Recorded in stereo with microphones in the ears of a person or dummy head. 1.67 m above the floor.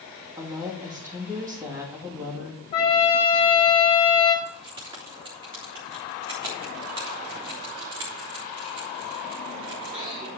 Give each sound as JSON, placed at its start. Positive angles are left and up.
{"t": 0.4, "sound": "a woman speaking", "side_deg": -15, "distance_m": 2.5}
{"t": 2.7, "sound": "a trumpet", "side_deg": 25, "distance_m": 1.9}
{"t": 4.5, "sound": "keys jangling", "side_deg": -25, "distance_m": 3.0}